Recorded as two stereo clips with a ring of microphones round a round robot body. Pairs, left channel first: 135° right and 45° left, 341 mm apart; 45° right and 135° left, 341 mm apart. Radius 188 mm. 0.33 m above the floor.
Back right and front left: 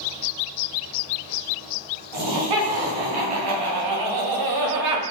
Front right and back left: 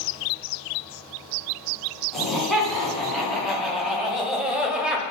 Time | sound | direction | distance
2.1 | laughter | 45° left | 4.5 m